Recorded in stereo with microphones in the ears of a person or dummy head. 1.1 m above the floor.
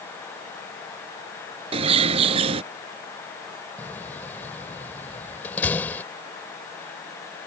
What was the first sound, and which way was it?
A bird, 30° right (ahead or behind).